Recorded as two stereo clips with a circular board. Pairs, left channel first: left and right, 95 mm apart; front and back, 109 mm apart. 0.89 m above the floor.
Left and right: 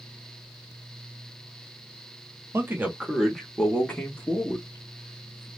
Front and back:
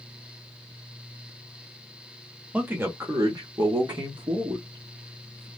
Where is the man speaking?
115° right, 0.8 m; by 5.5 s 145° left, 1.9 m.